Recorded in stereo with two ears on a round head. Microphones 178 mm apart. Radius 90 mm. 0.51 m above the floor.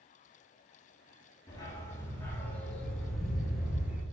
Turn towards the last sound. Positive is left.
turn(degrees=-10)  # may be behind; listen again after turning